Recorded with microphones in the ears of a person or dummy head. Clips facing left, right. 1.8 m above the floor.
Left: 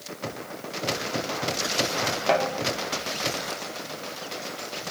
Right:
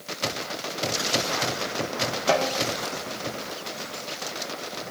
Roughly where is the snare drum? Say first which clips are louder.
Even; centre.